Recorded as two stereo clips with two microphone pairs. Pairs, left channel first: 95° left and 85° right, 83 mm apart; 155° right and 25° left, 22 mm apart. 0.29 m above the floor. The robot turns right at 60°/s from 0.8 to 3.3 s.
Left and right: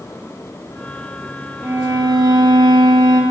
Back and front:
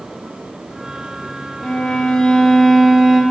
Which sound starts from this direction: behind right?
A violin, at 1.6 s.